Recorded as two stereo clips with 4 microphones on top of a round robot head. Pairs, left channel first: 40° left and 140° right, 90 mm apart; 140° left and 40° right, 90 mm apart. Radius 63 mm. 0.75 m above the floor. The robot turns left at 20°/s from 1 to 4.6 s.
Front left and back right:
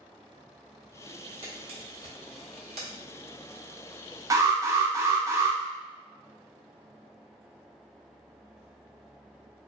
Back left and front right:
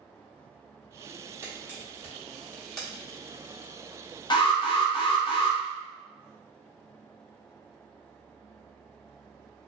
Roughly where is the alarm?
Behind.